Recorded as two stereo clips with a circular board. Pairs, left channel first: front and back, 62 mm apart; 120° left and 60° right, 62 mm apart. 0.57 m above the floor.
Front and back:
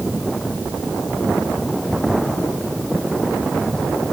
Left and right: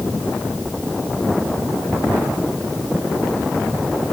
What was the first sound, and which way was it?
Only background noise.